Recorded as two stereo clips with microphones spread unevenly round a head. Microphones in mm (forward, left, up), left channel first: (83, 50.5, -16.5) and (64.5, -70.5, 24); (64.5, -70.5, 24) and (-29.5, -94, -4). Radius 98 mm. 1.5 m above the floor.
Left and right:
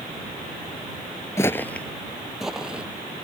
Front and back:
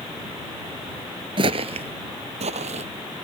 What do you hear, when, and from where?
1.4 s footsteps: 165° left; by 3.2 s 170° right